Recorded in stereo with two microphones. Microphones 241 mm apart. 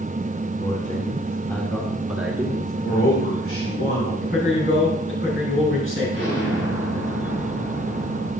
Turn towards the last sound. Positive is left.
turn(degrees=70)  # may be behind; listen again after turning